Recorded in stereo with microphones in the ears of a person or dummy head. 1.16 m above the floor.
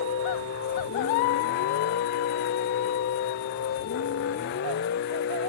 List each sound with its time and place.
0.0 s a vehicle: 60° left (ahead or behind)